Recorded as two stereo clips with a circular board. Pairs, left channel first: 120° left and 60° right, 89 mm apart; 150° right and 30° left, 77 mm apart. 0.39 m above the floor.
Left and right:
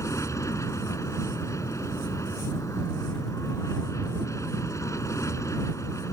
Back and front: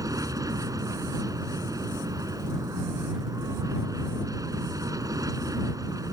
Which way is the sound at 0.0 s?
70° left.